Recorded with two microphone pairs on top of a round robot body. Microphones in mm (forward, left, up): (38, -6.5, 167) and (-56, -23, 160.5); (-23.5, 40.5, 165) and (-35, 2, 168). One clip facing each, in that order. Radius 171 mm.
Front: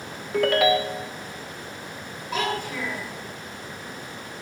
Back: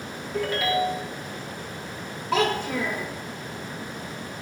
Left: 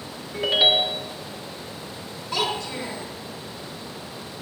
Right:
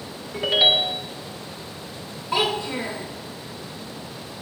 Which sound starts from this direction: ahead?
A ringtone, at 0.3 s.